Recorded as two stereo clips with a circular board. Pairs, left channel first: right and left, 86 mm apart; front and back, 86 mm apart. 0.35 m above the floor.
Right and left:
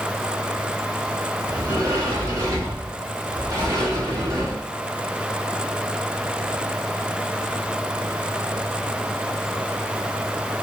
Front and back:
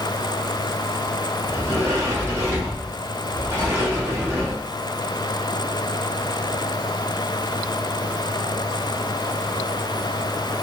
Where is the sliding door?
125° left, 2.5 m.